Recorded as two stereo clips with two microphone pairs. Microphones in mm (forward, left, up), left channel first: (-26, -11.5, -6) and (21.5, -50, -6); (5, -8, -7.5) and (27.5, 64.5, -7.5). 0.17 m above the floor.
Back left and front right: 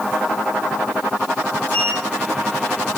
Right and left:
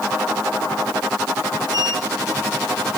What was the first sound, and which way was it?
A sliding door, 85° left.